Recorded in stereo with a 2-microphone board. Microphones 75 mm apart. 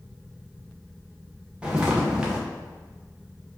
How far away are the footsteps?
About 1.6 m.